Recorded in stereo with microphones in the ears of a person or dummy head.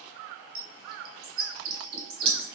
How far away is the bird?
About 1.1 m.